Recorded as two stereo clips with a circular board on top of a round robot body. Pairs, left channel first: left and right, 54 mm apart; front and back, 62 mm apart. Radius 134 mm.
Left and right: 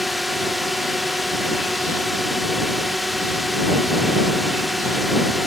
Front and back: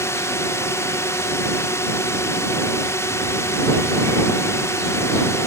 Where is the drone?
Straight ahead.